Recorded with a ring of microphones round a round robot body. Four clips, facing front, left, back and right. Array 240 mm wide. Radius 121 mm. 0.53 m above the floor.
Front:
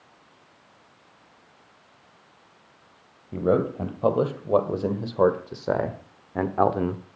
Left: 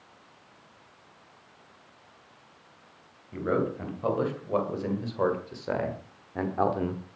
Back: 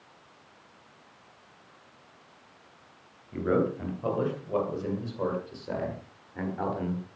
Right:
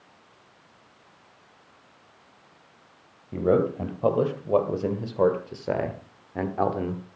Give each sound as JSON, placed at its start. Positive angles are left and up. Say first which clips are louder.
{"t": 3.3, "sound": "a man speaking", "louder": "right 6 dB, front 4 dB", "azimuth_deg": -40, "distance_m": 3.0}